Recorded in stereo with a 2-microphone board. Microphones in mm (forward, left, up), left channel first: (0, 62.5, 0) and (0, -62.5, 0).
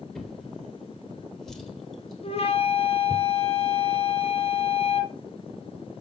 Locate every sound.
0.1 s a drawer: 5° left (ahead or behind), 2 m
2.2 s a flute: 50° left (ahead or behind), 1.7 m